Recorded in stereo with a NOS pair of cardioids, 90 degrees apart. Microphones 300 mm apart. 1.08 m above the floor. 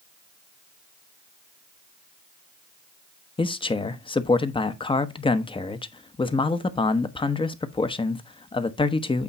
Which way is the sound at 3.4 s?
15° left.